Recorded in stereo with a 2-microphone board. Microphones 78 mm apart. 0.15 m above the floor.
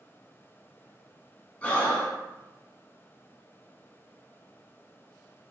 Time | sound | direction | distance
1.6 | breathing | 20° left (ahead or behind) | 0.7 m